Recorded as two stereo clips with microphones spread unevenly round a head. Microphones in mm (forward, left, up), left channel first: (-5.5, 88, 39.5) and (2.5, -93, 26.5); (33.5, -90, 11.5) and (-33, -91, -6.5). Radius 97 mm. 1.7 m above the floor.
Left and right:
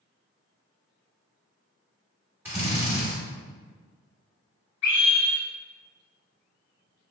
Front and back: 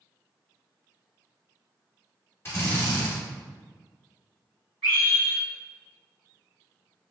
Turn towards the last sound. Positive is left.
turn(degrees=130)